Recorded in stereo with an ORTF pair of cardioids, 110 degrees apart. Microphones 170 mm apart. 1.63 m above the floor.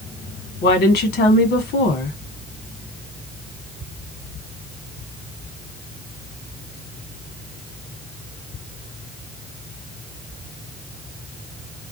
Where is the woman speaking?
65° left, 1.5 m.